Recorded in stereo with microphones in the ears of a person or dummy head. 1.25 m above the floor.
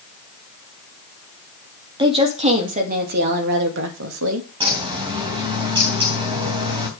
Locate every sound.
2.0 s a woman speaking: 25° right (ahead or behind), 2.5 m; by 4.5 s 80° right, 2.5 m
4.6 s a bird: 25° right (ahead or behind), 3 m